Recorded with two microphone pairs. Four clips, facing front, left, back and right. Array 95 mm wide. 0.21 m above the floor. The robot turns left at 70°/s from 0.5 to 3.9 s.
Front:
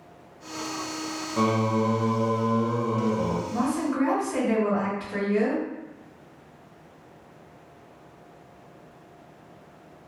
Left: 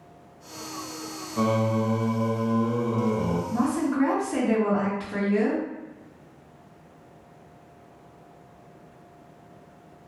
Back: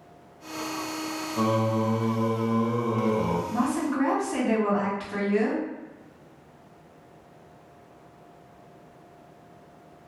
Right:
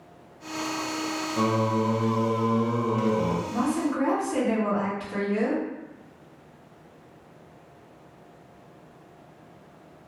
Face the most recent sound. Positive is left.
turn(degrees=-175)